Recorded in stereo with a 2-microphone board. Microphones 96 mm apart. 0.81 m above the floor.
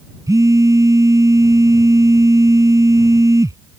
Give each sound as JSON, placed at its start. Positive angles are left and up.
{"t": 0.3, "sound": "a phone buzzing", "side_deg": -35}